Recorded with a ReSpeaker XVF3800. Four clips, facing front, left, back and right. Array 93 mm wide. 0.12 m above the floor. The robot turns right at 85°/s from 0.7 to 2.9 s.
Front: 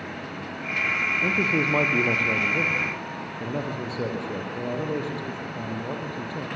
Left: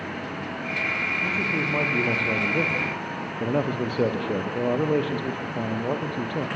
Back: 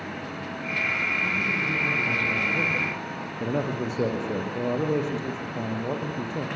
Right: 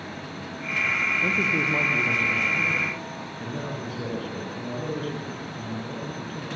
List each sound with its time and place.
1.2 s a man speaking: 35° right, 3.5 m; by 6.5 s 105° left, 3.5 m